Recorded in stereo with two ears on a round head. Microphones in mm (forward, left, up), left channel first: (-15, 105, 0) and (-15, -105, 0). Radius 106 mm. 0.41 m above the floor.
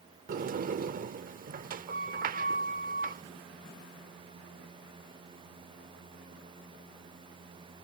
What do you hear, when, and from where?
0.3 s a sliding door: 35° right (ahead or behind)